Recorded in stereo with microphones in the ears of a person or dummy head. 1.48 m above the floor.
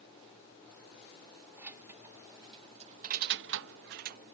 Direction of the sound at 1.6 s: 5° right (ahead or behind).